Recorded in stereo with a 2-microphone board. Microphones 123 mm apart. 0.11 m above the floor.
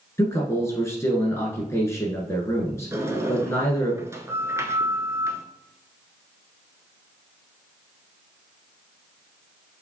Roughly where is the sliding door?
Right.